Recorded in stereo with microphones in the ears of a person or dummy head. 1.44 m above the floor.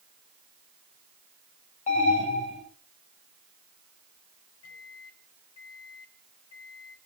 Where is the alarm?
35° left (ahead or behind), 9 m.